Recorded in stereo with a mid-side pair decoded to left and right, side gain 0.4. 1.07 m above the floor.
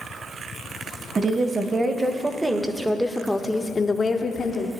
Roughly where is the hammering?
No hammering in this recording.